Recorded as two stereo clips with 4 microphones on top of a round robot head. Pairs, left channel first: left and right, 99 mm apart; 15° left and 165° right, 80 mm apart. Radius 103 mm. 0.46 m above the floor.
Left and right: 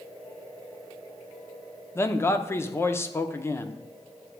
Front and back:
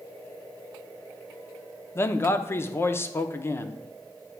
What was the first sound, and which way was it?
A man speaking, 45° left.